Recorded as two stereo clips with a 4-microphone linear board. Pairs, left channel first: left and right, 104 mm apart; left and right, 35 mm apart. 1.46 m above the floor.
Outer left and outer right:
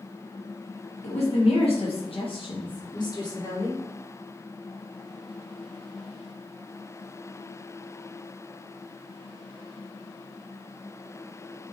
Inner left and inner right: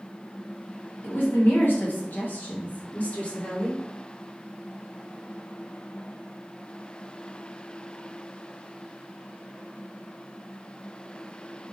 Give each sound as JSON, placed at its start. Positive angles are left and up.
{"t": 1.0, "sound": "a woman speaking", "side_deg": 80, "distance_m": 1.9}